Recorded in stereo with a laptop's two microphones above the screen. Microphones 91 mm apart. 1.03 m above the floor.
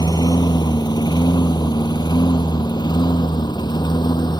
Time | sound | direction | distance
0.0 | a lawn mower | 50° left (ahead or behind) | ?